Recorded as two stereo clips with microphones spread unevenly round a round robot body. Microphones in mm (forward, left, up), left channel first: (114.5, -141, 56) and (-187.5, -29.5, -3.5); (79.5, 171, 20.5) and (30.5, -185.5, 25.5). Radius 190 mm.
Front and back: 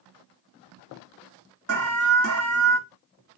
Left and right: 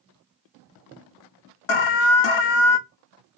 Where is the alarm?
105° left, 0.5 m.